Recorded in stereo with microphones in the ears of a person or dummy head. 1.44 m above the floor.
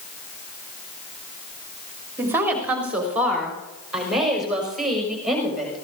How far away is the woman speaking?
About 3 m.